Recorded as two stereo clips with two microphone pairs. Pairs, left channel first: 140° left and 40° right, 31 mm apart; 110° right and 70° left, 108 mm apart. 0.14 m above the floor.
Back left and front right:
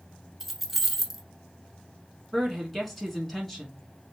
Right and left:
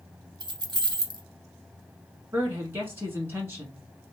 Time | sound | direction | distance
0.4 | keys jangling | 50° left | 1.1 m
2.3 | a woman speaking | 75° left | 1.1 m